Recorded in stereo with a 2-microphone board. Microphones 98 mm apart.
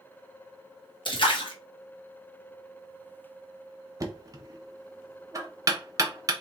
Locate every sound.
1.1 s a splash: 55° left (ahead or behind), 1.0 m
4.0 s knocking: 35° right (ahead or behind), 0.8 m